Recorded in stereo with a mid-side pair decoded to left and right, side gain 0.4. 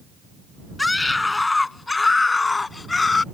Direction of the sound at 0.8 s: 20° left.